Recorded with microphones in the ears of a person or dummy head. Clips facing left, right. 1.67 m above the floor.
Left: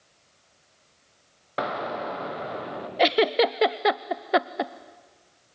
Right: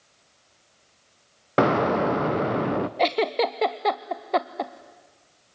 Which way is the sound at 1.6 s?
70° right (ahead or behind).